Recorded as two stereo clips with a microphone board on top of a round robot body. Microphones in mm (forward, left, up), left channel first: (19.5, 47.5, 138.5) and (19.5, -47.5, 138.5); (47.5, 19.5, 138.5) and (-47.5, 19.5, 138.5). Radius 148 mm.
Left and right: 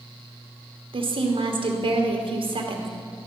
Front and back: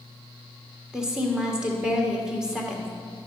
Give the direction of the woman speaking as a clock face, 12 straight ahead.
3 o'clock.